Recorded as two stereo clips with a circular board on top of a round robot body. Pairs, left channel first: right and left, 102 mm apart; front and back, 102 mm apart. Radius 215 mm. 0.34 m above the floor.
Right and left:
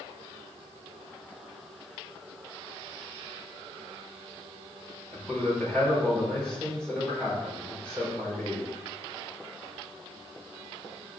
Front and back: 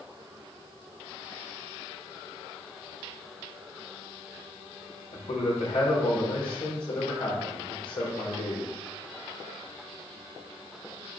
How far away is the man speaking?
About 5 m.